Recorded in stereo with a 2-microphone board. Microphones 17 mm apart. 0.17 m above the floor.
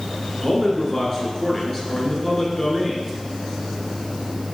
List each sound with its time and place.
0.4 s a man speaking: 25° left (ahead or behind), 2 m